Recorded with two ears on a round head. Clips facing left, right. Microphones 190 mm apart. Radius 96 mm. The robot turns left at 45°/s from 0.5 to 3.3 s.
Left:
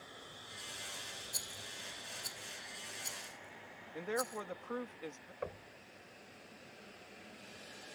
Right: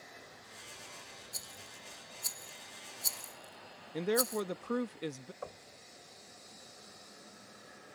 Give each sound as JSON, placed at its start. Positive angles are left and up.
{"t": 1.3, "sound": "a rattle", "side_deg": 0}
{"t": 3.9, "sound": "a man speaking", "side_deg": -45}
{"t": 5.4, "sound": "knocking", "side_deg": 25}